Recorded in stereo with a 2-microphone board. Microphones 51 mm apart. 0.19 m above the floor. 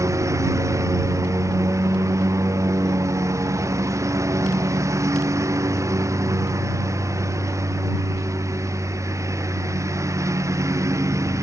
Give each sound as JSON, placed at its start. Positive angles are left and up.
{"t": 0.0, "sound": "a lawn mower", "side_deg": -85}